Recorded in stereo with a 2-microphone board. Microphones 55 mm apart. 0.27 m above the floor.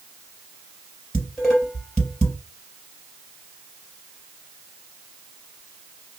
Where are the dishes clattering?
20° left (ahead or behind), 4 m.